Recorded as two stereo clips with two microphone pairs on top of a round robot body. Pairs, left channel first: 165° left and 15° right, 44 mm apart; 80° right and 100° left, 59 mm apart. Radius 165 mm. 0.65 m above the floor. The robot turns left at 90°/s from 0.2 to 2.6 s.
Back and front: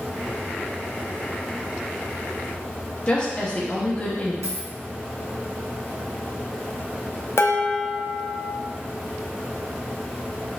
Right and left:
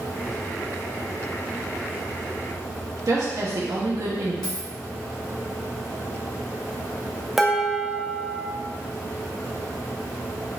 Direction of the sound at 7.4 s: 175° right.